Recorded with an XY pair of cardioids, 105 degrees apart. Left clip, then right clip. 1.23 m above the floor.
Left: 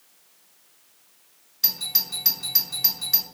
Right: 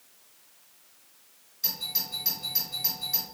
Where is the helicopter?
No helicopter in this recording.